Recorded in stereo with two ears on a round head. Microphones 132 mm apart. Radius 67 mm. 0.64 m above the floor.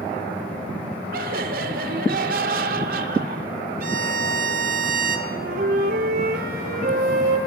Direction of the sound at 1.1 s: 65° right (ahead or behind).